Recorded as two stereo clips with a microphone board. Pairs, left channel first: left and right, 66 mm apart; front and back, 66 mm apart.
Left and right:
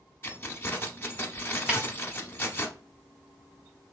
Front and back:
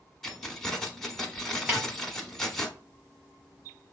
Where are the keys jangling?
80° left, 0.8 m.